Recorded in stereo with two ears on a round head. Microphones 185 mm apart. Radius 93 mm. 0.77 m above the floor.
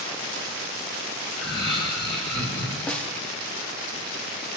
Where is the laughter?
20° left (ahead or behind), 7.5 m.